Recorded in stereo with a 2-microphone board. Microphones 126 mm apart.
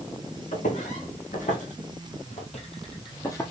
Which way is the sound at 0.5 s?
80° left.